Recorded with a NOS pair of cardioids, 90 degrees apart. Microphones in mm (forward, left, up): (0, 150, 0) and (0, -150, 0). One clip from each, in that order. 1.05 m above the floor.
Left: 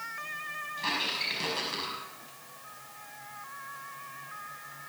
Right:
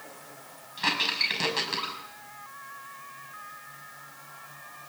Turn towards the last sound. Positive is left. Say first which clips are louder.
# right 6 dB
turn(degrees=-55)